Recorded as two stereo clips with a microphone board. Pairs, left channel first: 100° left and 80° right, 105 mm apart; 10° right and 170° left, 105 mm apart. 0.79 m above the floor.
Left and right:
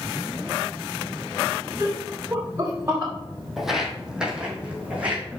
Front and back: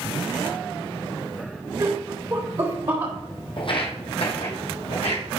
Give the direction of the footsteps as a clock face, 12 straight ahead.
12 o'clock.